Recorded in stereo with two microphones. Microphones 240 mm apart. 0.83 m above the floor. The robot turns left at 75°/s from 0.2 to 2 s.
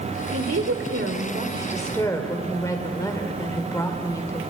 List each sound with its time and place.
0.3 s a woman speaking: 65° right, 2.5 m; by 4.4 s 165° left, 2.5 m